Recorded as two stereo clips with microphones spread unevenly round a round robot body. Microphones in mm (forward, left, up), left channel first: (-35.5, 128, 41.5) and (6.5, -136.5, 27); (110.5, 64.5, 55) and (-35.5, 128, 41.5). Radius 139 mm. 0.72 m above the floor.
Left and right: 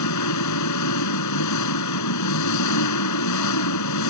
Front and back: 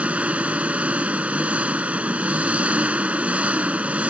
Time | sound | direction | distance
0.0 | an engine running | 75° left | ?